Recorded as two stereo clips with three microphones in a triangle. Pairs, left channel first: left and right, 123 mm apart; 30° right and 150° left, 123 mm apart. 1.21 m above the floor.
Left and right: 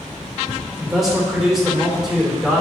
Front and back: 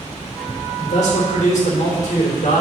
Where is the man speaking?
5° right, 3 m.